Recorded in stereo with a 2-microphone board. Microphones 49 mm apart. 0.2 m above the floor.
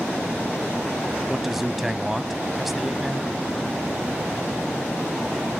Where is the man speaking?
5° right (ahead or behind), 1.0 m.